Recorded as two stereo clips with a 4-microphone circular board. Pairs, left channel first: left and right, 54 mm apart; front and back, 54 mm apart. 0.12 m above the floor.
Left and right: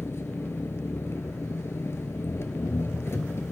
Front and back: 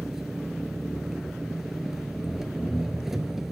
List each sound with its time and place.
0.0 s an engine running: 95° left, 0.7 m